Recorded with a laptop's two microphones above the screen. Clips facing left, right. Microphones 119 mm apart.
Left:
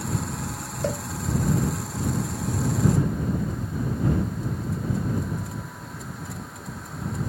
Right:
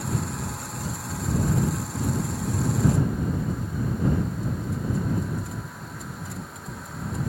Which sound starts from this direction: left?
A cowbell, at 0.8 s.